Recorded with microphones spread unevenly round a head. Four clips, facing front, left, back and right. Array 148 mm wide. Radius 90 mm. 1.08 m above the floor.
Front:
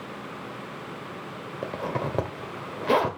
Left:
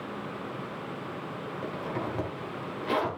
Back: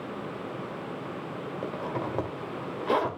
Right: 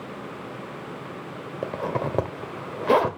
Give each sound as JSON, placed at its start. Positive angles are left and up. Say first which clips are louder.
{"t": 1.6, "sound": "a zipper", "louder": "right 7 dB, front 4 dB", "azimuth_deg": -55, "distance_m": 1.7}